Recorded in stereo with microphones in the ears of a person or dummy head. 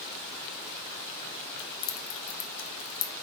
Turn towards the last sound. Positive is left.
turn(degrees=70)  # may be behind; listen again after turning